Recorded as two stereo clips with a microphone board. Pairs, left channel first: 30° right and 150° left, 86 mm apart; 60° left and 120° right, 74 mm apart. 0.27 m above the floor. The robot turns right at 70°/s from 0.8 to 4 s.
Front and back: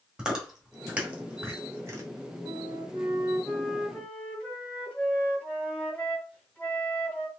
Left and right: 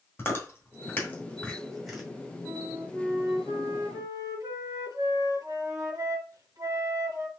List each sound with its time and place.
0.2 s chewing: 80° left, 1.5 m; by 2.0 s 165° left, 1.5 m
2.5 s a flute: 150° left, 1.7 m; by 7.3 s 105° right, 1.7 m